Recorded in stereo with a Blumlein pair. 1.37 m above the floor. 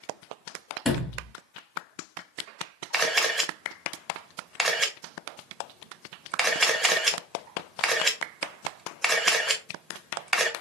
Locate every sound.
0.8 s a sliding door: 15° left, 1.9 m
2.9 s a camera shutter: 5° right, 0.9 m